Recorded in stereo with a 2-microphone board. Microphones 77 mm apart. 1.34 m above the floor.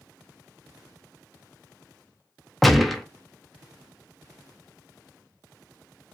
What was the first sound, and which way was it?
A gunshot, centre (ahead or behind).